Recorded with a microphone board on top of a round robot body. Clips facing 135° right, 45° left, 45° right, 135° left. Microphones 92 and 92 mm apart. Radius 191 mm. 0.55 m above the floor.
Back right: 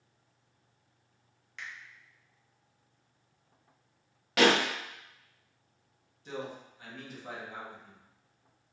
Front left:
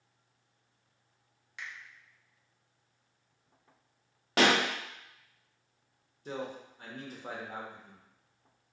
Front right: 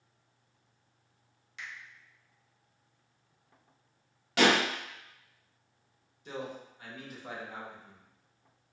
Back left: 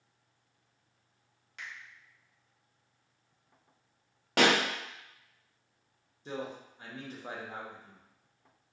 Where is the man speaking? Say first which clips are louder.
Front left 1 dB, back left 1 dB; 85° left, 0.8 m.